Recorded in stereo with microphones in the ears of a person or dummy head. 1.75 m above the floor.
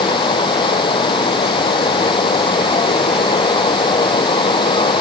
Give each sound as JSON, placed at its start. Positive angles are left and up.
{"t": 0.0, "sound": "running water", "side_deg": 25}